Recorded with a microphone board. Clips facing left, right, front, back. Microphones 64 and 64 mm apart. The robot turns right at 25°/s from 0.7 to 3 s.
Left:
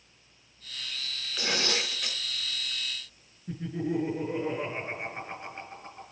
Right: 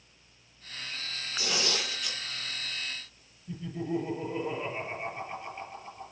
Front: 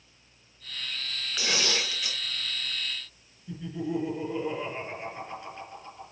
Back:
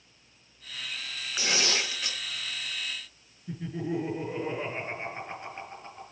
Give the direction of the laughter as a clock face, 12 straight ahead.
8 o'clock.